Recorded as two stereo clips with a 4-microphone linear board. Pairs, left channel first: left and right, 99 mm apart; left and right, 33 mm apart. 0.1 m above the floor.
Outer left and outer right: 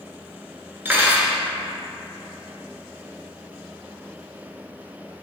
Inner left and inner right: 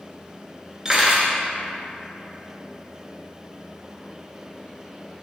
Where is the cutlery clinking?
20° right (ahead or behind), 0.8 m.